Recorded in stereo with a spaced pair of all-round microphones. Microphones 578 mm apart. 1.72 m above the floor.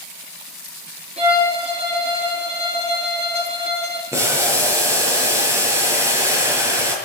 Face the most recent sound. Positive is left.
turn(degrees=-5)  # may be behind; listen again after turning